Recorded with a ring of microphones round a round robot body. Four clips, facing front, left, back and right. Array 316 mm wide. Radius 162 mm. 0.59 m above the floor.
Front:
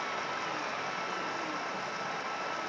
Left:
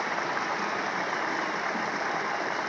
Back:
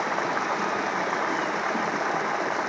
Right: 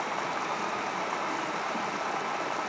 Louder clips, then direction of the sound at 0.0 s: Left 2 dB, back 9 dB; 170° left.